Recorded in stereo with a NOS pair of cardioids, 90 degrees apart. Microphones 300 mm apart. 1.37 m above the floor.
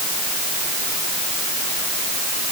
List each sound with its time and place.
Only background noise.